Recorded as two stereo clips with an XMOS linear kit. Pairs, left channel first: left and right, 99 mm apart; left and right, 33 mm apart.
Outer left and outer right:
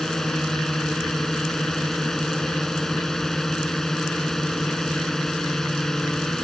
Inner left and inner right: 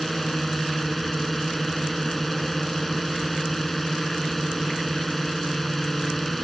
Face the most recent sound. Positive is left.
turn(degrees=5)  # may be behind; listen again after turning